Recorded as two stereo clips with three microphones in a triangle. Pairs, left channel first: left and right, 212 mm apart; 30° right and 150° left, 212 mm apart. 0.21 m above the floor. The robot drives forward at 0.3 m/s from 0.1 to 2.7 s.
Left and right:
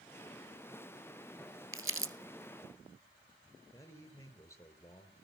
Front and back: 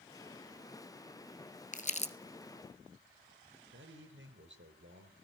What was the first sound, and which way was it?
Crumpling, 85° right.